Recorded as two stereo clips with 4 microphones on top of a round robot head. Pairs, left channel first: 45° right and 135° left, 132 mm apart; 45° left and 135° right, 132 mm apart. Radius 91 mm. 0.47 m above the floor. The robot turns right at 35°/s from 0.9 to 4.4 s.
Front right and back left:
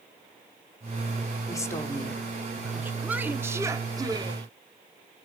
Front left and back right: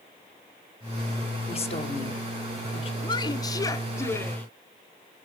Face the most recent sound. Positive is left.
turn(degrees=110)